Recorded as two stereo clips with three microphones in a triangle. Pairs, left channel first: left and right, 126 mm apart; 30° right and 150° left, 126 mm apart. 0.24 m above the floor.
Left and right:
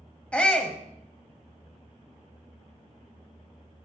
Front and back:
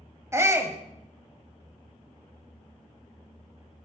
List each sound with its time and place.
0.3 s a shout: 155° left, 1.0 m